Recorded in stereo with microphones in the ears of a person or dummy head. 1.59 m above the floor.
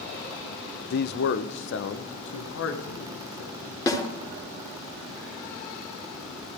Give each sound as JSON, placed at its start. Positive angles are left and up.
{"t": 0.9, "sound": "a man speaking", "side_deg": 60, "distance_m": 0.8}
{"t": 3.9, "sound": "a snare drum", "side_deg": 20, "distance_m": 3.5}